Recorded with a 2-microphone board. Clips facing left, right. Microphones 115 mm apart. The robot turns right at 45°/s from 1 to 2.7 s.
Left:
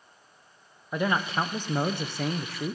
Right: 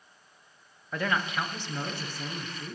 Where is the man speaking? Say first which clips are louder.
Left 3 dB; 20° left, 0.9 m; by 2.8 s 95° left, 0.9 m.